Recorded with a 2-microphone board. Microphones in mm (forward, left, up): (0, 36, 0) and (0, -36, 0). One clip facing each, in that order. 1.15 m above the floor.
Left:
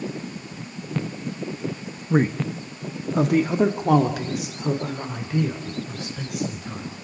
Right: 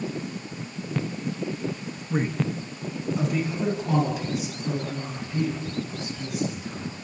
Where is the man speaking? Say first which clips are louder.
Left 5 dB; 35° left (ahead or behind), 1.1 m; by 6.9 s 80° left, 4.5 m.